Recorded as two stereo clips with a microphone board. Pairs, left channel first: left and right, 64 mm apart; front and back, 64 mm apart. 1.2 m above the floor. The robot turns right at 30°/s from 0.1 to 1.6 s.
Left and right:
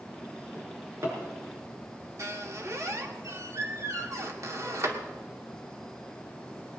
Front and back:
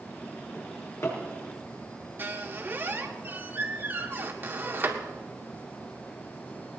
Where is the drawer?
55° right, 6 m; by 1.2 s 40° right, 6 m.